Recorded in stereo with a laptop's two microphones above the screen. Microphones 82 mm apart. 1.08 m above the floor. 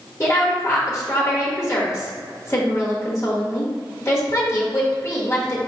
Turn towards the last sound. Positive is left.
turn(degrees=30)  # may be behind; listen again after turning